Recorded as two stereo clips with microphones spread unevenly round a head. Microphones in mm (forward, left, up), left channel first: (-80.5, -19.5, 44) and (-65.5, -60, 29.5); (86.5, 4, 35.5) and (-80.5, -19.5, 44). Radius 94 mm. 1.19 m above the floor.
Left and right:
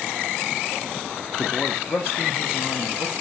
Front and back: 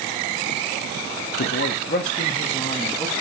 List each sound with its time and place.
1.4 s a man speaking: 20° left, 0.6 m; by 3.1 s 90° left, 1.1 m